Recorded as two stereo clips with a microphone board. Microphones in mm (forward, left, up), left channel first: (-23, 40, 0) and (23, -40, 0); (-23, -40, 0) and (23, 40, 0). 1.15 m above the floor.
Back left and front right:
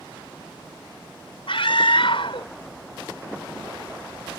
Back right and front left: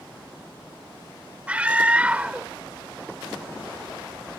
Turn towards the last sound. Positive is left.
turn(degrees=135)